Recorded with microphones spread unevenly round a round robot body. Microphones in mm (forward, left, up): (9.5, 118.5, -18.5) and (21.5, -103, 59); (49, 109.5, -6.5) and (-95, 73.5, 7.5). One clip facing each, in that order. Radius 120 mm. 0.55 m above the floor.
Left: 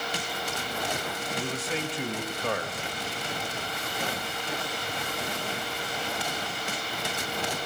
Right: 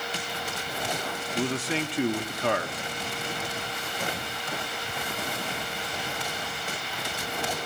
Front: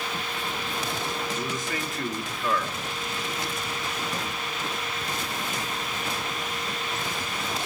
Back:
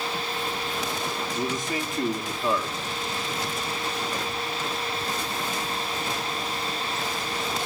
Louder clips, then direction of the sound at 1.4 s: Right 5 dB, back 3 dB; 100° right.